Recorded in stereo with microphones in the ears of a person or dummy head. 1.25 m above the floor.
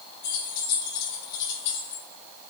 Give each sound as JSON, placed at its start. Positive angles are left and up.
{"t": 0.2, "sound": "keys jangling", "side_deg": 60, "distance_m": 3.5}